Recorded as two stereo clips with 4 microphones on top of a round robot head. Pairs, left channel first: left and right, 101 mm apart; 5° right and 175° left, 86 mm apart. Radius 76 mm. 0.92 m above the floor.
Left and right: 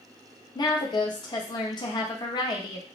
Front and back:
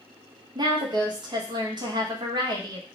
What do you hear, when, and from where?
0.6 s a woman speaking: 140° left, 0.7 m